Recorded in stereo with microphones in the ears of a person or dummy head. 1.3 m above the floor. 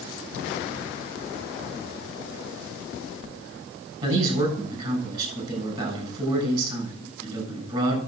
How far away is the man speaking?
About 7.5 m.